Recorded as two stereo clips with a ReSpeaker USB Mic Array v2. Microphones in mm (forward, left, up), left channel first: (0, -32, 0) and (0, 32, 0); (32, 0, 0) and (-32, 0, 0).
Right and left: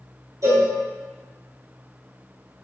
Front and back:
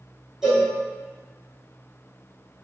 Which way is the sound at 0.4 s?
95° left.